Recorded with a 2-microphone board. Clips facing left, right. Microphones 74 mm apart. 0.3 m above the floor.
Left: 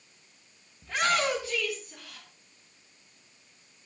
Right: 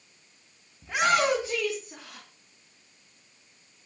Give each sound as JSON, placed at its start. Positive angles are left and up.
{"t": 0.8, "sound": "a shout", "side_deg": -15, "distance_m": 2.5}